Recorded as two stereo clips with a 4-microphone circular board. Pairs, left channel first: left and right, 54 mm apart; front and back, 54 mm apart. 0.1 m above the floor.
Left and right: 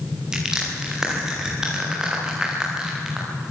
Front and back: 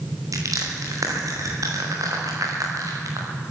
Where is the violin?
No violin in this recording.